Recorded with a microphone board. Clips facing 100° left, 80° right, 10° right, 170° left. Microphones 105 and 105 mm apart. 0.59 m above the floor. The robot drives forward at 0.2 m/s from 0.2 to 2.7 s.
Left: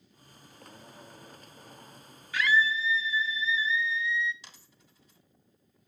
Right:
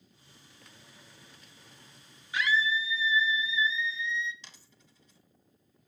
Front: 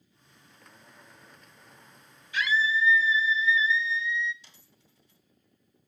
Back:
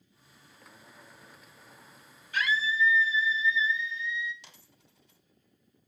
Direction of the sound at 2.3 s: 150° right.